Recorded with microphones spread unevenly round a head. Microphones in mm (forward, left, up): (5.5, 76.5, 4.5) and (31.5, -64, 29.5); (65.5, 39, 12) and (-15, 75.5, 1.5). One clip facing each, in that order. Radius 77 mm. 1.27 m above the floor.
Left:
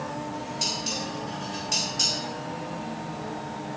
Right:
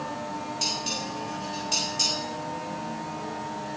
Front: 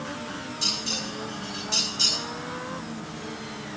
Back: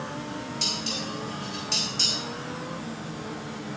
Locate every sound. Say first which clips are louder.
0.6 s dishes clattering: even, back 1 dB; 165° right, 5 m